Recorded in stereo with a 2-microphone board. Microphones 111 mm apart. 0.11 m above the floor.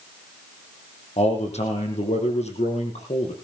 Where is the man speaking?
70° left (ahead or behind), 5 m.